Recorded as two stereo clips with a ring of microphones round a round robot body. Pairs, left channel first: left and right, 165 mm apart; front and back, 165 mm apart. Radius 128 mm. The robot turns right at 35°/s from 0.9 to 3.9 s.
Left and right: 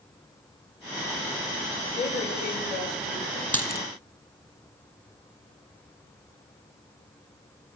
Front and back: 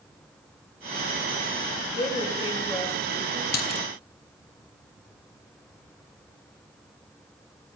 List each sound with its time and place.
1.9 s a woman speaking: 40° left, 4 m; by 3.4 s 90° left, 4 m
3.5 s a dropped coin: 10° left, 1.2 m; by 3.8 s 20° left, 1.2 m